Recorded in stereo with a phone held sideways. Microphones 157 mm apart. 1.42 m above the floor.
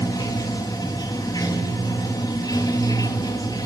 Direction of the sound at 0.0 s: 25° left (ahead or behind).